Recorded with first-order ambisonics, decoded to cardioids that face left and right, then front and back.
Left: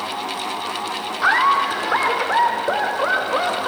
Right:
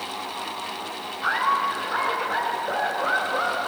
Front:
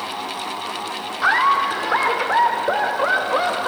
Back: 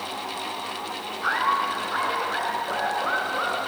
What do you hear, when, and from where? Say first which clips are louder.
1.2 s laughter: left 6 dB, front 7 dB; 45° left, 2.5 m; by 3.7 s 30° left, 4 m